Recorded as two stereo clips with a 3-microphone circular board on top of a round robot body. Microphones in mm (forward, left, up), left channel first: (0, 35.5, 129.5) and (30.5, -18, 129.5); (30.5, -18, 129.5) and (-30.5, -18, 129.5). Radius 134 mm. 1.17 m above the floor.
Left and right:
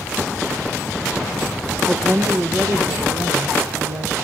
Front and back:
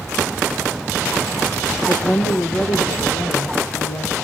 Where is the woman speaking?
Straight ahead, 1.0 m; by 4.1 s 25° right, 2.5 m.